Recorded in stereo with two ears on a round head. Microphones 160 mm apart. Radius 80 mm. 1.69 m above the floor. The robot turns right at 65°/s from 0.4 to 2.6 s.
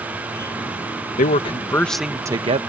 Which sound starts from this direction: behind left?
A man speaking, at 1.2 s.